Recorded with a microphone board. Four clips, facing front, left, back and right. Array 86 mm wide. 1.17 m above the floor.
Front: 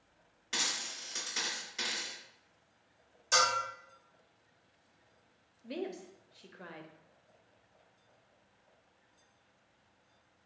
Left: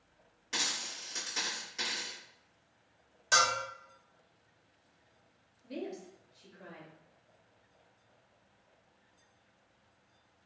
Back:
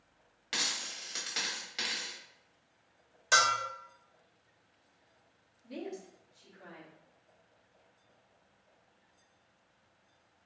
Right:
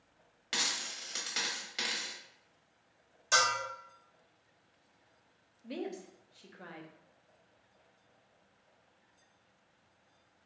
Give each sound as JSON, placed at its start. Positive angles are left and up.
{"t": 0.5, "sound": "a dropped coin", "azimuth_deg": -130, "distance_m": 1.3}
{"t": 3.3, "sound": "a bell", "azimuth_deg": 165, "distance_m": 1.7}
{"t": 5.6, "sound": "a woman speaking", "azimuth_deg": -35, "distance_m": 0.6}